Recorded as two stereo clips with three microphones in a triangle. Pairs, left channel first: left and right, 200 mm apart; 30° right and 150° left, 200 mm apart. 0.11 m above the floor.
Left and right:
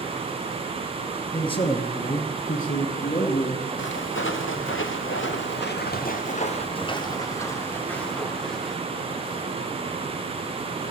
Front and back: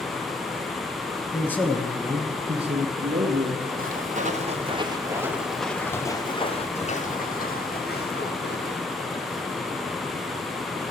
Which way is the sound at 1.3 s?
35° left.